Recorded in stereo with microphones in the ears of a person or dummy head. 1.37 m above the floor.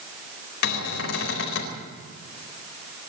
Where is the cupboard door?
70° left (ahead or behind), 4 m.